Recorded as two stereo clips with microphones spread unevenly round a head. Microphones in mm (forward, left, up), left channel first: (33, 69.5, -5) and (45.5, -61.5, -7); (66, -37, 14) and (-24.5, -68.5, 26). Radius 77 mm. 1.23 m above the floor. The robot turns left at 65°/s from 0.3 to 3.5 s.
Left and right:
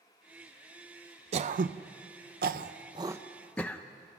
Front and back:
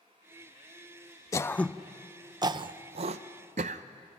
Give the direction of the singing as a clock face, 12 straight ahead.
I don't hear singing.